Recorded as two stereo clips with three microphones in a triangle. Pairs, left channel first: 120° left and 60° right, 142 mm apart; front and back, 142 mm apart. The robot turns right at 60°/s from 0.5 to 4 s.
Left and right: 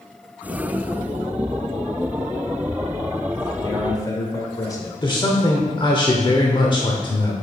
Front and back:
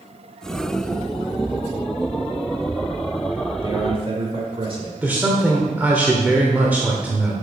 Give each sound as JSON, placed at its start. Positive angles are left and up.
{"t": 3.6, "sound": "a man speaking", "azimuth_deg": 145, "distance_m": 1.5}
{"t": 5.0, "sound": "a man speaking", "azimuth_deg": 110, "distance_m": 0.9}